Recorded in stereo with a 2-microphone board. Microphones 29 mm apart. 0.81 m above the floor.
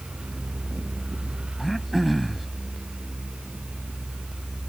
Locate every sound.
1.6 s throat clearing: centre (ahead or behind)